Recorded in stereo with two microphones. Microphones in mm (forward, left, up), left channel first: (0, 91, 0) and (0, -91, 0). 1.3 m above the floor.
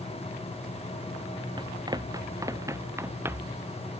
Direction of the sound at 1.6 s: 25° right (ahead or behind).